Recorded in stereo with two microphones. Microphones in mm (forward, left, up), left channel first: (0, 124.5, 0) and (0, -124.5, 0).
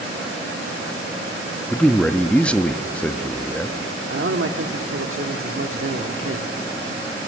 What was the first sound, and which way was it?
A man speaking, 5° left (ahead or behind).